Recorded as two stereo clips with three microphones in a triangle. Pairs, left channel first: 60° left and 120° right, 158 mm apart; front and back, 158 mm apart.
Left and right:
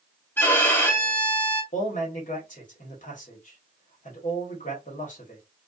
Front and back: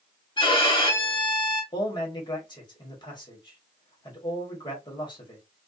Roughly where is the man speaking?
Ahead left.